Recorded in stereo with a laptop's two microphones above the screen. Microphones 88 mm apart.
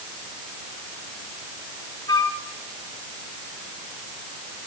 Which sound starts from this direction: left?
A flute, at 2.1 s.